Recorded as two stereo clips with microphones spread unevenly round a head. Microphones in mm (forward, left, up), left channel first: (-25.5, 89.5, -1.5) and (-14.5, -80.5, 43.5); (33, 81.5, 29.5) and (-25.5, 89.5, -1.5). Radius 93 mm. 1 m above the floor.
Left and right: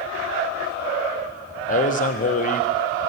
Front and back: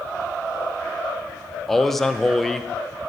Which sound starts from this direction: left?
A man speaking, at 1.7 s.